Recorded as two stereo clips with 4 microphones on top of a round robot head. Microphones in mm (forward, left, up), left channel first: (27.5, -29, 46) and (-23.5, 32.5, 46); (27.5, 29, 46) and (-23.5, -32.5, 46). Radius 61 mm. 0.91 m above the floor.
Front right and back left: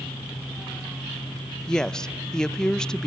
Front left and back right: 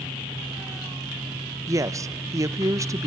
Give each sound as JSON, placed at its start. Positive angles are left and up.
{"t": 1.7, "sound": "a woman speaking", "azimuth_deg": -130, "distance_m": 0.6}